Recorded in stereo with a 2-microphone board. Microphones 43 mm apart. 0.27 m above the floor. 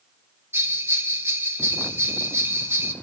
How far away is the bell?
About 1.1 m.